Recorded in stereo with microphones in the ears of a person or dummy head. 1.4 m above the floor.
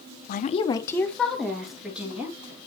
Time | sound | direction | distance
0.3 | a woman speaking | 55° left (ahead or behind) | 0.6 m